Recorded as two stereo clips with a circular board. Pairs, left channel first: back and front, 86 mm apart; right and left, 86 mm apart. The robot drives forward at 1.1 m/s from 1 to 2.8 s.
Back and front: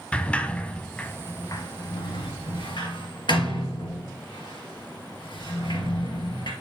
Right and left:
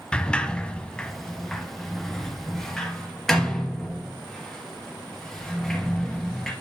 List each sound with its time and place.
0.1 s a sliding door: 140° right, 0.8 m; by 6.5 s 175° right, 2.5 m